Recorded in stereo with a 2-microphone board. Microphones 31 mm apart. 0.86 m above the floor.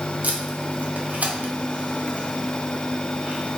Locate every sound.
0.2 s tape being pulled: 60° right (ahead or behind), 0.7 m